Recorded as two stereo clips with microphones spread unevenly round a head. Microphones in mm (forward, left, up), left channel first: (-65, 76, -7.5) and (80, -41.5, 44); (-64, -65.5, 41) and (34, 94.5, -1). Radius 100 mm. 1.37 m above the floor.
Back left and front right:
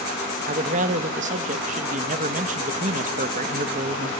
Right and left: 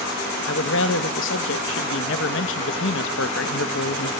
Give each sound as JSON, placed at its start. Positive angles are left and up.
{"t": 0.5, "sound": "a man speaking", "azimuth_deg": -90, "distance_m": 1.5}